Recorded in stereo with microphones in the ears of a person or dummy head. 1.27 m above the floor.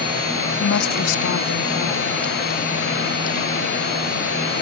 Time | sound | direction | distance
0.6 | a woman speaking | 70° left (ahead or behind) | ?